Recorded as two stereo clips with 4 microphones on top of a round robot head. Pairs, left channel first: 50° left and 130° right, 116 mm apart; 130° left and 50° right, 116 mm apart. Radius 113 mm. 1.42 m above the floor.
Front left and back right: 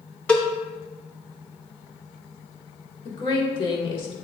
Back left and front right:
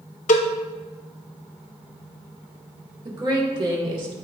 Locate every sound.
0.3 s a cowbell: 130° left, 0.7 m
3.0 s a woman speaking: straight ahead, 1.7 m